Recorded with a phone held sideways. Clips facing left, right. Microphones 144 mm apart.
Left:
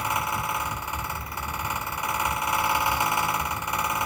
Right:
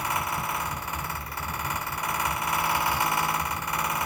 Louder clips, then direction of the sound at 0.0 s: Left 2 dB; 20° left (ahead or behind).